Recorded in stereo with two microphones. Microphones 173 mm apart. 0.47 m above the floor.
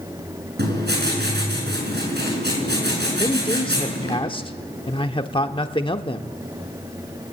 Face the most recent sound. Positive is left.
turn(degrees=30)  # may be behind; listen again after turning